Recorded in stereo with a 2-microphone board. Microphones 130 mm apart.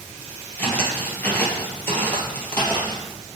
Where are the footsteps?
15° left (ahead or behind), 1.7 m.